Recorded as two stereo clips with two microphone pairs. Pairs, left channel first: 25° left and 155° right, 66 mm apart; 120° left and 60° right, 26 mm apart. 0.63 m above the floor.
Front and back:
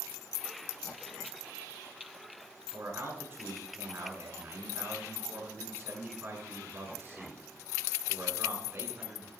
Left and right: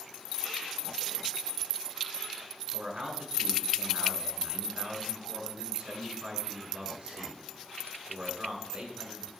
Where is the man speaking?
100° right, 6.5 m.